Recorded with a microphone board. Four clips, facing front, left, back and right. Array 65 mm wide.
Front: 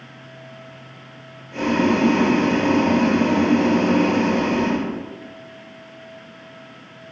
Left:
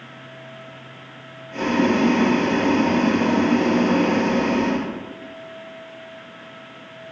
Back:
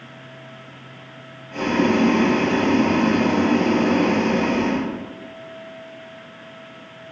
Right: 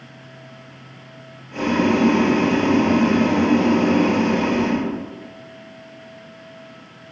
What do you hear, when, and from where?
1.5 s boiling: 160° right, 1.8 m